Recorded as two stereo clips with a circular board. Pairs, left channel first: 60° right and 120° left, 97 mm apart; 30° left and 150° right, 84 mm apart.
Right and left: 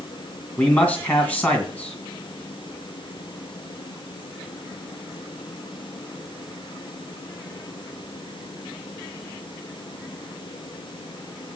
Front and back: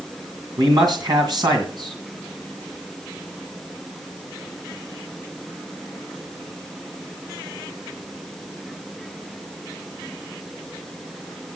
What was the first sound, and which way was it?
A man speaking, 135° right.